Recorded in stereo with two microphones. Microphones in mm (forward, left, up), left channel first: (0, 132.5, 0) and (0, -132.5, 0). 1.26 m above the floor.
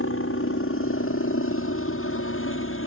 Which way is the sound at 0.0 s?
55° left (ahead or behind).